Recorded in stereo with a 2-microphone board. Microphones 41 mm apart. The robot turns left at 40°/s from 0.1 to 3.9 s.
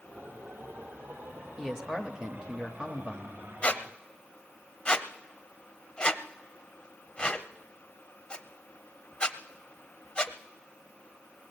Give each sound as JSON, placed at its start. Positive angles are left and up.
{"t": 1.6, "sound": "a man speaking", "side_deg": -10, "distance_m": 1.0}
{"t": 3.6, "sound": "a squeak", "side_deg": 30, "distance_m": 0.8}